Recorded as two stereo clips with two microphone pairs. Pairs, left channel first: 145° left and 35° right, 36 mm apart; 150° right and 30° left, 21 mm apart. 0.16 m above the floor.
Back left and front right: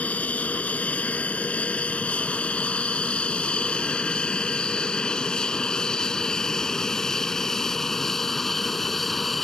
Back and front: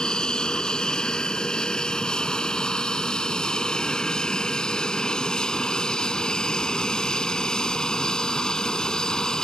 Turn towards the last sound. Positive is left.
turn(degrees=-130)